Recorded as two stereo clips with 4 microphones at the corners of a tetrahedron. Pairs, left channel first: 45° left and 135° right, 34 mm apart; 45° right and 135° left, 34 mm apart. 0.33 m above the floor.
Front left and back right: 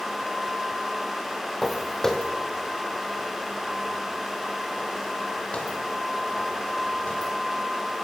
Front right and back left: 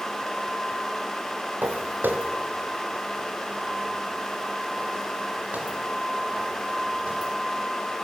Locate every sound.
1.6 s footsteps: 130° left, 2.5 m; by 7.3 s 90° left, 9 m